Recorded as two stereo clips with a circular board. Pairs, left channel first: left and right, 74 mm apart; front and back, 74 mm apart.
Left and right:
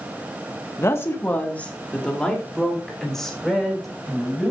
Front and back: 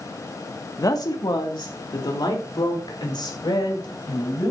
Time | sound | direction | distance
0.8 | a woman speaking | 40° left | 1.6 m